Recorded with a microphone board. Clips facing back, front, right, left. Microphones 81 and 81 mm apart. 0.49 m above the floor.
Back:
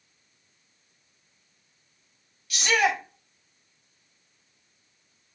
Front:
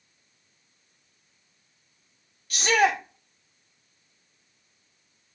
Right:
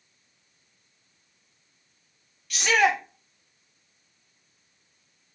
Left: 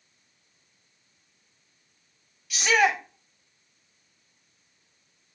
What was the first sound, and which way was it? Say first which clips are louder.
A shout: front 2 dB, even; 5° left.